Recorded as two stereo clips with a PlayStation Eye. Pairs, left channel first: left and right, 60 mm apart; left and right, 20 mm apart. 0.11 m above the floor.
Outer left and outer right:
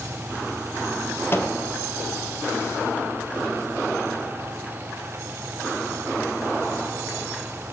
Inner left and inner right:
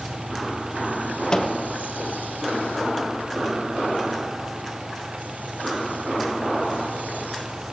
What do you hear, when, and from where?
1.3 s a microwave: 40° left (ahead or behind), 2.5 m